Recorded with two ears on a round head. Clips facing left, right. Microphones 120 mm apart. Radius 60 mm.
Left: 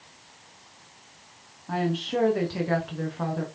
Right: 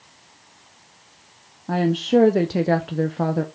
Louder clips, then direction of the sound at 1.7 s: Right 8 dB; 55° right (ahead or behind).